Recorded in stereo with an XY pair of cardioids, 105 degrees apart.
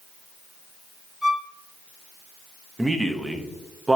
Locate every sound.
1.2 s a violin: 15° left, 3 m
2.8 s a man speaking: 15° right, 1.0 m